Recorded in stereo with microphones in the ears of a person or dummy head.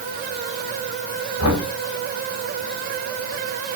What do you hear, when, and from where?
1.4 s knocking: 85° left, 6.5 m